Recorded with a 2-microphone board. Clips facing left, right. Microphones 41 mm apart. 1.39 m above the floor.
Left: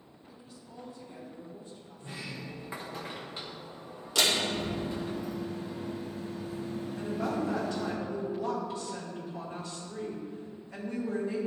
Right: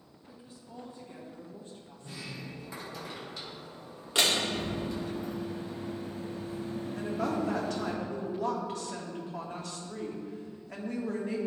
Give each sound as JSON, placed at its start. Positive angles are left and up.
{"t": 0.3, "sound": "a woman speaking", "side_deg": -20, "distance_m": 2.0}
{"t": 2.0, "sound": "a sliding door", "side_deg": 30, "distance_m": 0.9}
{"t": 4.2, "sound": "a door slam", "side_deg": -30, "distance_m": 1.9}
{"t": 7.0, "sound": "a woman speaking", "side_deg": -70, "distance_m": 1.5}